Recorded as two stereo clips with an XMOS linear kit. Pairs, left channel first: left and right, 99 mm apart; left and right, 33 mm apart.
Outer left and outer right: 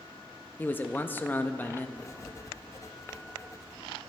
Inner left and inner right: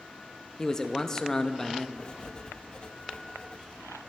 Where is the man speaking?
20° left (ahead or behind), 0.7 m.